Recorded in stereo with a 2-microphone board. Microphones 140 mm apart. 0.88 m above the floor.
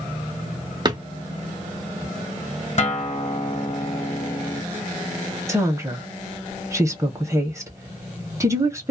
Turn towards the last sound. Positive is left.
turn(degrees=-20)  # may be behind; listen again after turning